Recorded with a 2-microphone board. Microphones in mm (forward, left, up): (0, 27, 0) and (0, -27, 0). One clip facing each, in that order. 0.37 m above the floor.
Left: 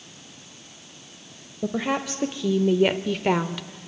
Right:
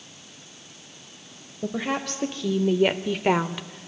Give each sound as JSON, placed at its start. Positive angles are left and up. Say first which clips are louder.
{"t": 1.6, "sound": "a woman speaking", "louder": "left 2 dB", "side_deg": 15, "distance_m": 1.4}